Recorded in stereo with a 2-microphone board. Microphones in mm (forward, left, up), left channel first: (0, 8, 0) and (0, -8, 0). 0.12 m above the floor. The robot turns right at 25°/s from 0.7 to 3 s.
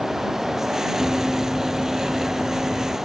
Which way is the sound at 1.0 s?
45° right (ahead or behind).